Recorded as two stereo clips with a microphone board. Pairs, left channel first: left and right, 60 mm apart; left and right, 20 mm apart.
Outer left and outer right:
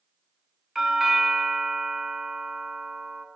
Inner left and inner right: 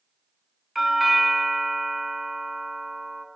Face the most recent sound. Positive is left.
turn(degrees=-5)  # may be behind; listen again after turning